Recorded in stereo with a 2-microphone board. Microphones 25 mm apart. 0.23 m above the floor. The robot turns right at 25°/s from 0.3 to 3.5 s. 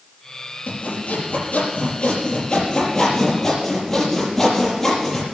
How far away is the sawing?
About 5.5 m.